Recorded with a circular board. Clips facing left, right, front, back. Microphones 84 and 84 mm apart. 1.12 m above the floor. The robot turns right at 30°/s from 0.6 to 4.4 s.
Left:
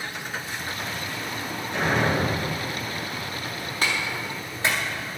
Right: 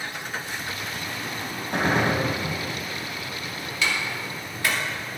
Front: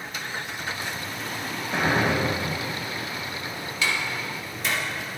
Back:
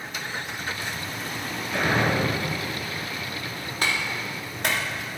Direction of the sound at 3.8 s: 135° left.